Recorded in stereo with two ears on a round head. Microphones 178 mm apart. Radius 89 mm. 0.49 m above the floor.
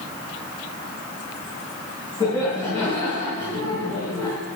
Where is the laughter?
15° left (ahead or behind), 5 m.